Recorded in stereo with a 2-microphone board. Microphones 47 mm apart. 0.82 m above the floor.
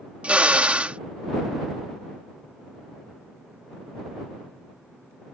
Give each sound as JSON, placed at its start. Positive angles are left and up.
{"t": 0.2, "sound": "a drill", "side_deg": -25}